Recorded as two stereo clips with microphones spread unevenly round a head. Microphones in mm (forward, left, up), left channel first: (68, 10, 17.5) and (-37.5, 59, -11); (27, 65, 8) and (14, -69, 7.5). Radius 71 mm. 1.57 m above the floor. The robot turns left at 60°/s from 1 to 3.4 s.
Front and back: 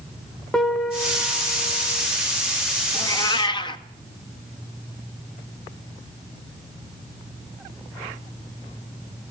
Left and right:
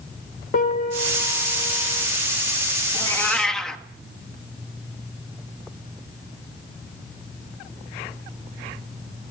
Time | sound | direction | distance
0.5 | a piano | 60° left | 2.5 m
2.9 | a cat meowing | 25° left | 1.4 m